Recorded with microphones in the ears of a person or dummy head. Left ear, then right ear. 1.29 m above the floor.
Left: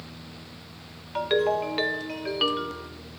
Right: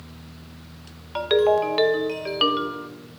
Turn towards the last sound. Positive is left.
turn(degrees=-10)  # may be behind; listen again after turning